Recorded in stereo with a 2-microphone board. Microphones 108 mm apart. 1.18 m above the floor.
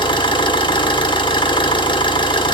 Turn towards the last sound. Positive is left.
turn(degrees=45)  # may be behind; listen again after turning